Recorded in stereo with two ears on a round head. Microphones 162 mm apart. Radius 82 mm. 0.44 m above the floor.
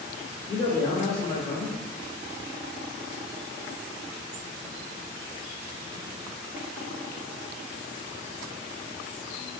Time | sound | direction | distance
0.5 | a man speaking | 20° left (ahead or behind) | 1.1 m